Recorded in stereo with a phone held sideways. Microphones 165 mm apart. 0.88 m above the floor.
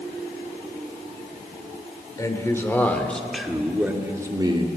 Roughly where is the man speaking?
Left.